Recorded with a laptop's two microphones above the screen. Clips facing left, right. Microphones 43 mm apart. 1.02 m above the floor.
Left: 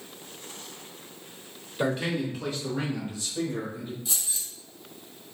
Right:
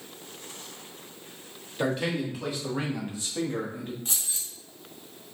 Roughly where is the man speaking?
Centre.